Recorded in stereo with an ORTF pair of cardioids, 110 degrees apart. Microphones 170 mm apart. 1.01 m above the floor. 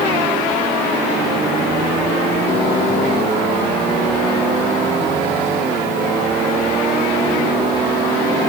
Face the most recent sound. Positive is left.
No sound to turn to.